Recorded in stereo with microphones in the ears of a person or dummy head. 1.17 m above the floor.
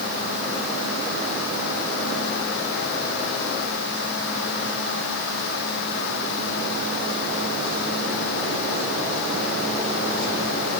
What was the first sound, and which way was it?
Only background noise.